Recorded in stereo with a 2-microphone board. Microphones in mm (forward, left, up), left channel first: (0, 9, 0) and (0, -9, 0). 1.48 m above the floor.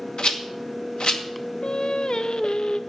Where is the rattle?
65° left (ahead or behind), 1.6 m.